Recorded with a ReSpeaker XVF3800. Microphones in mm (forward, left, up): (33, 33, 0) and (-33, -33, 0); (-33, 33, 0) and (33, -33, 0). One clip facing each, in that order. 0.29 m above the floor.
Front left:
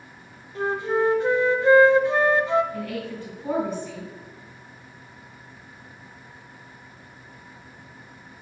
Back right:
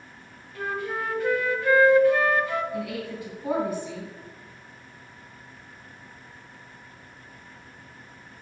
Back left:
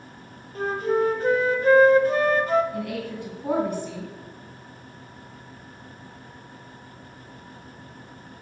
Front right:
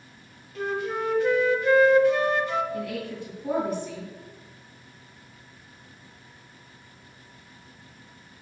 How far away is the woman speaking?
About 3 m.